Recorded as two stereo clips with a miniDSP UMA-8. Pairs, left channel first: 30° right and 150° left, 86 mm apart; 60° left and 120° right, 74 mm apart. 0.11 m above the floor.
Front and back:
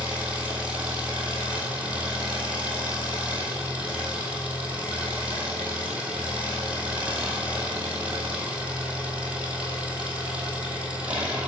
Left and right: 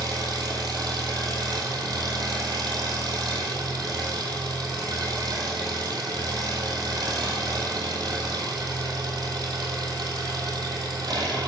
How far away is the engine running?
About 2.5 m.